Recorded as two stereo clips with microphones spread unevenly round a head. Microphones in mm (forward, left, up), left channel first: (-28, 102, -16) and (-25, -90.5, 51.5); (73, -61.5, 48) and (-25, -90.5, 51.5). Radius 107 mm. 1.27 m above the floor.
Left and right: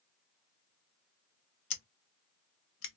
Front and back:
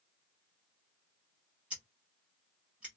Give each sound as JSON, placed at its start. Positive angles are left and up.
{"t": 1.7, "sound": "scissors", "azimuth_deg": 115, "distance_m": 0.8}